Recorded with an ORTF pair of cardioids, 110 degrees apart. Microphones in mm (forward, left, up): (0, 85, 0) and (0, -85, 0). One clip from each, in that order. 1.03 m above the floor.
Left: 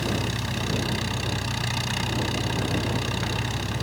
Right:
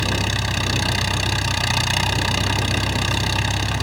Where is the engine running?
50° right.